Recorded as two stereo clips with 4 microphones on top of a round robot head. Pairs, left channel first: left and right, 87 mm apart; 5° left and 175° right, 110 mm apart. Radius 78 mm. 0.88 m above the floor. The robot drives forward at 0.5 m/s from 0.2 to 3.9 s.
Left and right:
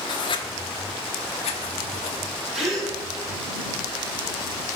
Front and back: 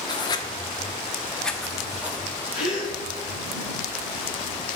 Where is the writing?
55° left, 1.2 m; by 2.2 s 110° left, 1.1 m.